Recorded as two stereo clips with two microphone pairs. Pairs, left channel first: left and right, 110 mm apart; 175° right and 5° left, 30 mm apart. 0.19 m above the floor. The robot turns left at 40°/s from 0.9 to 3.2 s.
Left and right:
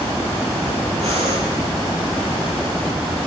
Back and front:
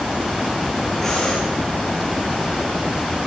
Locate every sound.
1.0 s breathing: 100° right, 7.5 m; by 1.4 s 115° right, 7.5 m